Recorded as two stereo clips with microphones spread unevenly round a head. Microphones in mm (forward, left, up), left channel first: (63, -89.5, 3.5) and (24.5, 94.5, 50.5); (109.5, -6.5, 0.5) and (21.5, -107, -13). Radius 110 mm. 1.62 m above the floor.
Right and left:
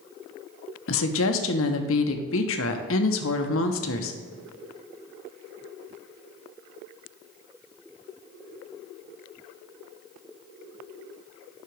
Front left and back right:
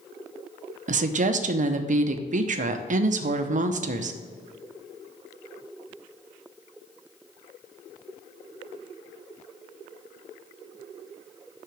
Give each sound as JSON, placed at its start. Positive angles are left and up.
{"t": 0.9, "sound": "a woman speaking", "azimuth_deg": -115, "distance_m": 0.7}